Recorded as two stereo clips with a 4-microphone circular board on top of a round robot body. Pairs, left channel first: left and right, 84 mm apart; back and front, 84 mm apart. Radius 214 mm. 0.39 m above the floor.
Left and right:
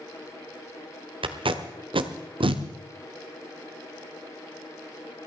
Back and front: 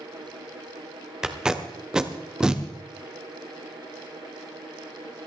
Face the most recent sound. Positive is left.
turn(degrees=-80)